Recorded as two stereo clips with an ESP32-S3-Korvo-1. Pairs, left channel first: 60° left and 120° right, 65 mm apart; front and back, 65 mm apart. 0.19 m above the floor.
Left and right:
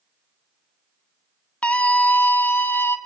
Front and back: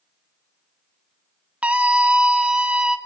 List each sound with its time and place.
1.6 s a scream: 125° left, 1.9 m; by 3.0 s 105° left, 2.5 m